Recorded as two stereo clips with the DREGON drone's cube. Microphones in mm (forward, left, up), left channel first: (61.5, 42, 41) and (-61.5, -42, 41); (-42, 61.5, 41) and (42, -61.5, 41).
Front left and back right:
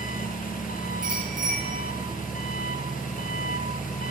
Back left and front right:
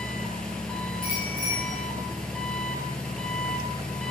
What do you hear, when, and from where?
0.0 s an engine running: 40° left, 1.3 m
1.0 s a bicycle bell: 175° right, 7.5 m